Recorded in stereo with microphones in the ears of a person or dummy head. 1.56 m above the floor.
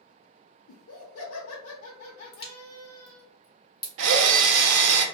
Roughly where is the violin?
I don't hear a violin.